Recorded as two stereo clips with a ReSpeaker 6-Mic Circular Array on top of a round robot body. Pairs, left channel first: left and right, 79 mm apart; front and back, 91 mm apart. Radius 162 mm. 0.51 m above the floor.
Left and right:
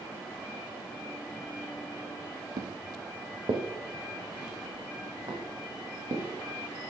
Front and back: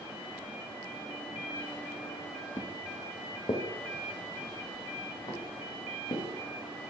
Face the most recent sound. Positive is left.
turn(degrees=-45)